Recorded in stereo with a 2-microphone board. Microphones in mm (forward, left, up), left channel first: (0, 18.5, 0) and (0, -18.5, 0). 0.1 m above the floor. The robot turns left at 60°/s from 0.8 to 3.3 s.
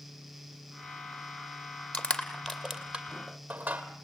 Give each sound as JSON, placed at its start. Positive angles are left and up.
{"t": 1.9, "sound": "crushing", "side_deg": 35, "distance_m": 2.0}